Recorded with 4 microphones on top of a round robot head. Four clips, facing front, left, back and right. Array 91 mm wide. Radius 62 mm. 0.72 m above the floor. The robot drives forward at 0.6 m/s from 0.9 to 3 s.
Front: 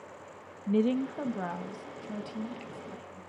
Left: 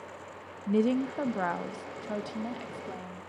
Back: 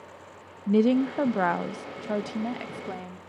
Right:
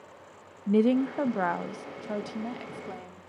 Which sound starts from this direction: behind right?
A woman speaking, at 0.7 s.